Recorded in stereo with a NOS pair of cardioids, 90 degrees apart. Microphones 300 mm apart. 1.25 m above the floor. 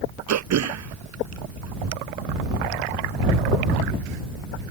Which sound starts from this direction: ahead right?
Throat clearing, at 0.3 s.